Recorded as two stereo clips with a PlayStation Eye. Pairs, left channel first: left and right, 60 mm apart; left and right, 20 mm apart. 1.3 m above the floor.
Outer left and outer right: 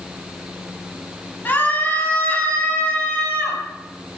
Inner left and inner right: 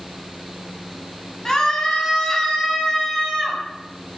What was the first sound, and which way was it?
A scream, 35° left (ahead or behind).